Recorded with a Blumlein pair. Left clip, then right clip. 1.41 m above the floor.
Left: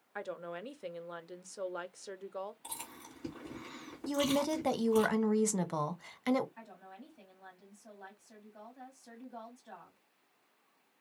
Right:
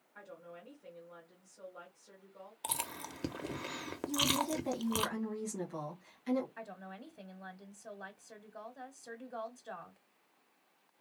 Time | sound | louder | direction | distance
0.1 | a woman speaking | left 10 dB | 50° left | 0.6 m
2.6 | chewing | right 7 dB | 50° right | 0.8 m
4.1 | a woman speaking | left 1 dB | 50° left | 0.9 m
6.6 | a woman speaking | right 4 dB | 70° right | 1.1 m